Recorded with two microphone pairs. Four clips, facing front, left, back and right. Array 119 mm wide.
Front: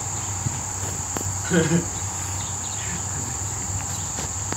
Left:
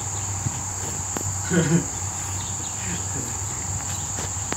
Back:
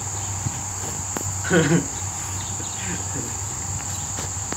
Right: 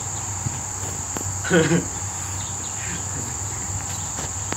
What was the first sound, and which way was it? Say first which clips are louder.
Laughter: right 4 dB, back 3 dB; 135° right.